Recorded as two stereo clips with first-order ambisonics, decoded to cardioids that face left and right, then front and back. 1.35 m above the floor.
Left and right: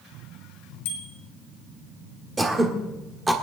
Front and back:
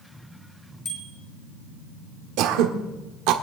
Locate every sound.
0.8 s a bicycle bell: 75° left, 4 m
2.4 s throat clearing: 170° right, 1.5 m